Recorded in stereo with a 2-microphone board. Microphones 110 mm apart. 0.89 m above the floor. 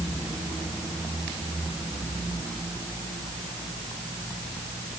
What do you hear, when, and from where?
Only background noise.